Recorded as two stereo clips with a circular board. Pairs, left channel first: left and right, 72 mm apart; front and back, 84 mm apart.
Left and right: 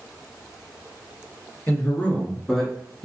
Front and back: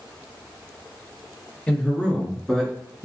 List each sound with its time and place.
1.7 s a man speaking: 65° left, 1.3 m; by 3.0 s 85° right, 1.1 m